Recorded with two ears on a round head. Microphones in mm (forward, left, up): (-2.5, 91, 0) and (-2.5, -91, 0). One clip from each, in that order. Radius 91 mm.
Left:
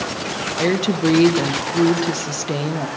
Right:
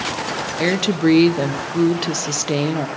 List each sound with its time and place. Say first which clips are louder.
0.6 s a woman speaking: right 1 dB; 20° right (ahead or behind), 0.8 m